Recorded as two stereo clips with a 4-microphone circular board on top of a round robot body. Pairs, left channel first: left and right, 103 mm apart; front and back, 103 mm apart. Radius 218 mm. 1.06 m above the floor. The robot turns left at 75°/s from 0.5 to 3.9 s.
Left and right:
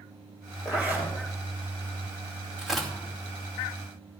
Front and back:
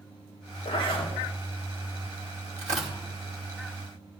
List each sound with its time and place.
0.7 s a zipper: 5° right, 4.5 m; by 1.1 s 40° right, 4.5 m
2.6 s tearing paper: 170° right, 2 m; by 3.0 s 165° left, 2 m